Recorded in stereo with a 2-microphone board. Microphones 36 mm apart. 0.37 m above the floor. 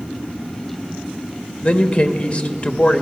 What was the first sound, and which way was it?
A man speaking, 35° left (ahead or behind).